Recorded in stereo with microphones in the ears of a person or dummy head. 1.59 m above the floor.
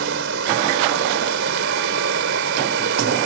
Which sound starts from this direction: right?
Running water, at 0.0 s.